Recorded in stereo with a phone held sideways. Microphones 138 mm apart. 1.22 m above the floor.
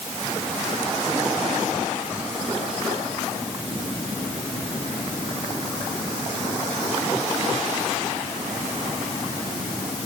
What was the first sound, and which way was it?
Only background noise.